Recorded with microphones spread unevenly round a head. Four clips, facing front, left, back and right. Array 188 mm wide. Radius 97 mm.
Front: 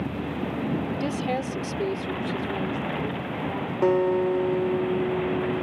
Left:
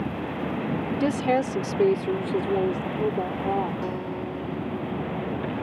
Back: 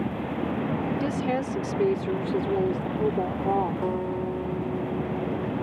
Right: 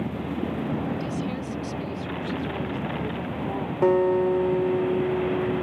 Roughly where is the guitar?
Ahead right.